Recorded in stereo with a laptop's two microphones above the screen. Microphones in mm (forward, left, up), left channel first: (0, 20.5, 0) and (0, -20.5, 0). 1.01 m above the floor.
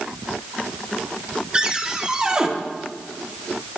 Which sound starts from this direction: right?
A cupboard door, at 1.5 s.